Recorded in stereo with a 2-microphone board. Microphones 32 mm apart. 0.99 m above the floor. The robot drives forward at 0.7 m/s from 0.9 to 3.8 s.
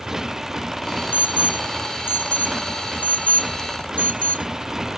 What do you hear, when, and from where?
0.0 s a motorcycle: 15° right (ahead or behind); by 5.0 s 20° right (ahead or behind)
1.1 s an alarm: 85° left; by 4.5 s 50° left (ahead or behind)